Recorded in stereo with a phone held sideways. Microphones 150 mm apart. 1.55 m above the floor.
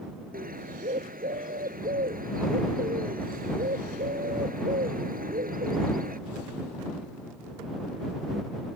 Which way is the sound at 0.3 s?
70° right (ahead or behind).